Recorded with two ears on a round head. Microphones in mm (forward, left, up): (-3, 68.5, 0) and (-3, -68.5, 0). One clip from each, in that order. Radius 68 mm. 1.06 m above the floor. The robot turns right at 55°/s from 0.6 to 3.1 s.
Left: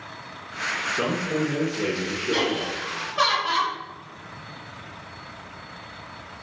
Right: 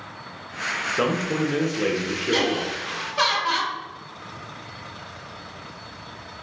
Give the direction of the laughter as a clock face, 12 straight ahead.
3 o'clock.